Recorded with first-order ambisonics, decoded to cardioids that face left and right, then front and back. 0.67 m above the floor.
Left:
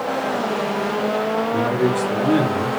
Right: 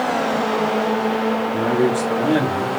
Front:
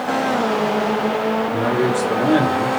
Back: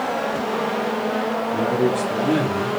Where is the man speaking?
25° right, 2 m; by 2.8 s 50° right, 1.3 m.